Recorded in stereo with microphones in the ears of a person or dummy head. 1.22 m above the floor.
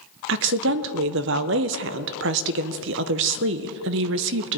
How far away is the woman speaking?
About 0.5 m.